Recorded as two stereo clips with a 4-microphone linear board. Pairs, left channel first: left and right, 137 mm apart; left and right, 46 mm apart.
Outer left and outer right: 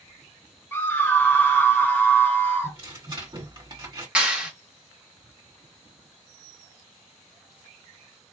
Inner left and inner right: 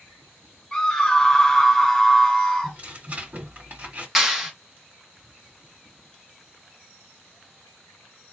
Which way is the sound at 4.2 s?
10° right (ahead or behind).